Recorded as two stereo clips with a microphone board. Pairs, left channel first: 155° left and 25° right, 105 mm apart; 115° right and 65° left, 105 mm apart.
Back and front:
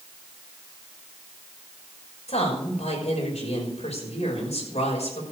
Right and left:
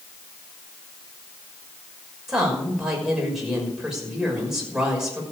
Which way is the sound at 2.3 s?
155° left.